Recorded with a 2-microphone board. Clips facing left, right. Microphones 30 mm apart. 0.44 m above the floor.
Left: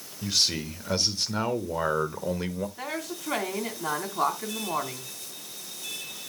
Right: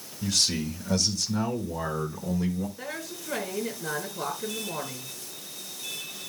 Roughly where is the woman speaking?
Left.